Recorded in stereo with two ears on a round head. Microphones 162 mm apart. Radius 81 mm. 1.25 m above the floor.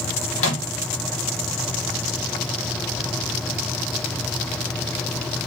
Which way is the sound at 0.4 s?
85° left.